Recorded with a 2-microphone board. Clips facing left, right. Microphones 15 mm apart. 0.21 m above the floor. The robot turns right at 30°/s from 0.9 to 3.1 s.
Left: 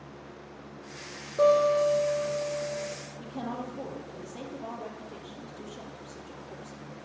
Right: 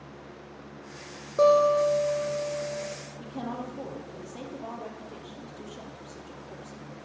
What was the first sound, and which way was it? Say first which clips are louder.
A guitar: right 2 dB; 65° right.